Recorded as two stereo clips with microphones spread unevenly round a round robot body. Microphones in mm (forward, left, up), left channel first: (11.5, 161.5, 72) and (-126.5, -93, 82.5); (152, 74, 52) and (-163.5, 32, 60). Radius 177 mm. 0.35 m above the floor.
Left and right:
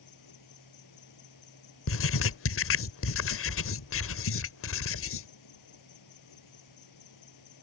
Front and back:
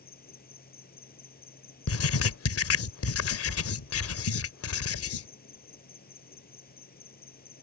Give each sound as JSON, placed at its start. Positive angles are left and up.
{"t": 0.0, "sound": "an insect", "azimuth_deg": 70}
{"t": 1.9, "sound": "writing", "azimuth_deg": 35}